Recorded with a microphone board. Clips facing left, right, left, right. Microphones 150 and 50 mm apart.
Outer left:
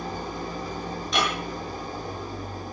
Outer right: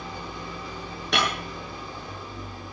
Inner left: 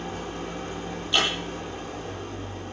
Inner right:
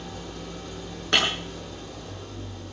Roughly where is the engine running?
Left.